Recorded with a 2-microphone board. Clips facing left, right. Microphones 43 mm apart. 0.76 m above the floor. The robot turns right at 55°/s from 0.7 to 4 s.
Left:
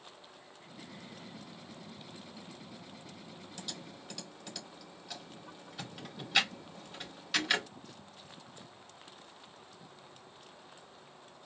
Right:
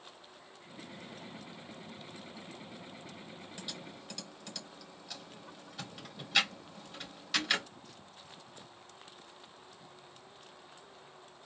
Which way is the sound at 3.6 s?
20° right (ahead or behind).